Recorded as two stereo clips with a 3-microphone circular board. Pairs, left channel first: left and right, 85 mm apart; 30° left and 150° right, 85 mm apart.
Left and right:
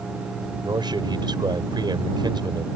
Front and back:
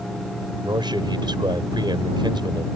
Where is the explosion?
I don't hear an explosion.